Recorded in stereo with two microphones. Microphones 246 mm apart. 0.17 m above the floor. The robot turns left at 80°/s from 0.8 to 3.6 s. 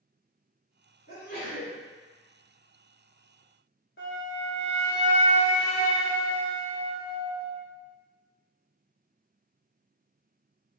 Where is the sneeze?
90° left, 2.0 m; by 1.8 s 30° left, 2.0 m.